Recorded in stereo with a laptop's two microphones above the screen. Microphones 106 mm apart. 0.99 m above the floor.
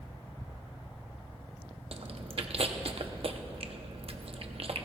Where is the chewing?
65° right (ahead or behind), 0.8 m.